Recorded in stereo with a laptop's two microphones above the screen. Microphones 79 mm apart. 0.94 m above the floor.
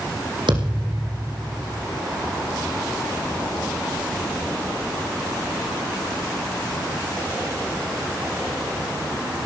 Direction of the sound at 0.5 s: 80° right.